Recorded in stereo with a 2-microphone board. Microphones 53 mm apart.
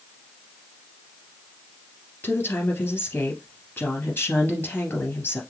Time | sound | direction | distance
2.2 | a woman speaking | 40° left (ahead or behind) | 2.5 m